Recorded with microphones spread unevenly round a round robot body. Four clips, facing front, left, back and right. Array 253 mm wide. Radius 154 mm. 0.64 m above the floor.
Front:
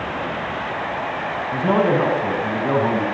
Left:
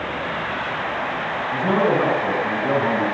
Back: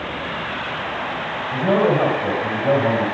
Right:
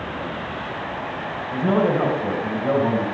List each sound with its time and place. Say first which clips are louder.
1.5 s a man speaking: even, back 1 dB; 125° right, 3.5 m